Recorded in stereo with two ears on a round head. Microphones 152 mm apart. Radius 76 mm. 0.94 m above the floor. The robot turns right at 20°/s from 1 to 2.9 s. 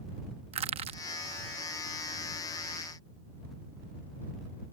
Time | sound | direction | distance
0.5 | crushing | 35° right (ahead or behind) | ?